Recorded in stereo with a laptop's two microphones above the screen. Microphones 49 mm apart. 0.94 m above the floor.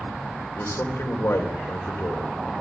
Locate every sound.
0.6 s a man speaking: 65° left (ahead or behind), 4 m